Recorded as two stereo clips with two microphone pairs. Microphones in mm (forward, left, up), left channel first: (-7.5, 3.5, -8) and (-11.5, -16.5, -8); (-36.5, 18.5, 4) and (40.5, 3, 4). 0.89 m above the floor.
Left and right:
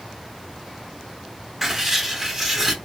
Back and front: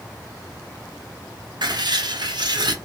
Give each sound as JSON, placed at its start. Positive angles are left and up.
{"t": 1.6, "sound": "writing", "azimuth_deg": -30, "distance_m": 0.6}